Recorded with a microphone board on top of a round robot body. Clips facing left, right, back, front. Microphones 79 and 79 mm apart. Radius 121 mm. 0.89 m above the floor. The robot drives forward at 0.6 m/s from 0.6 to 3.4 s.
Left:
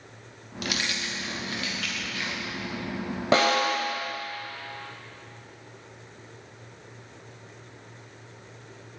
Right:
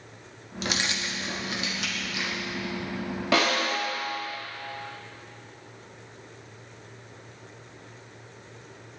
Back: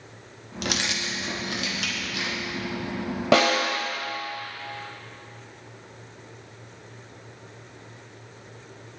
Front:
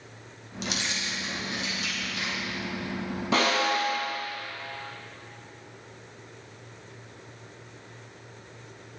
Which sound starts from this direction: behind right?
Keys jangling, at 0.6 s.